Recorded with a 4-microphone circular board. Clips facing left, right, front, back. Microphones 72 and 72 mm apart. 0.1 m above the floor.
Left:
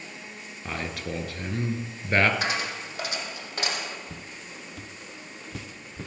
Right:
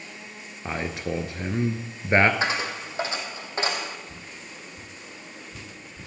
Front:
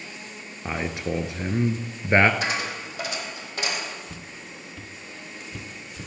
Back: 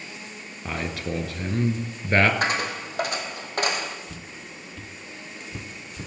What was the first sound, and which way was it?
A man speaking, 50° right.